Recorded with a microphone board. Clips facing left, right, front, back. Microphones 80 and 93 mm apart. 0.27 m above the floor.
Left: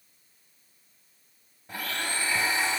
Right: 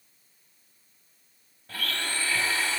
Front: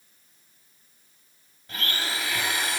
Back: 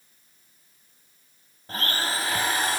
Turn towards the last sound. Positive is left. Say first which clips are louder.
# even, back 3 dB
turn(degrees=155)